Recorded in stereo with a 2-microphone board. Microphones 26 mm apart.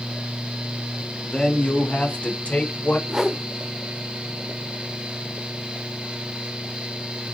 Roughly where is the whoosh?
Right.